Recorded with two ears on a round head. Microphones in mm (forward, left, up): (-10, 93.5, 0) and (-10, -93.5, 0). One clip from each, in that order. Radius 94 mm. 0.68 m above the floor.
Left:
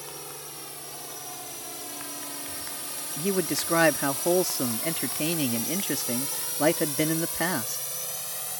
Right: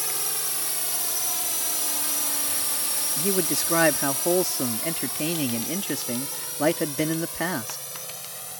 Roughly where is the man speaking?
Centre.